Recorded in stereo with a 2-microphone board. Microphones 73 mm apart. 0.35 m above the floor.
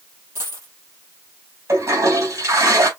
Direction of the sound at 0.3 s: 35° right (ahead or behind).